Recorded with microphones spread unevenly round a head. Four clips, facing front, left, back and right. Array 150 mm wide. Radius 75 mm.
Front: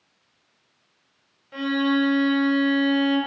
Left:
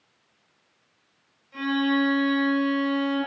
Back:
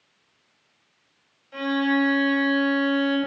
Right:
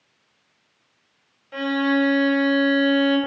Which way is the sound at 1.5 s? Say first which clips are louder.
Right 3 dB, front 1 dB; 80° right.